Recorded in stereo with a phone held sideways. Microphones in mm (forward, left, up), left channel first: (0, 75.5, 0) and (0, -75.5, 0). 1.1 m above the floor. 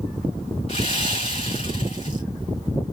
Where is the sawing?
45° left (ahead or behind), 2 m.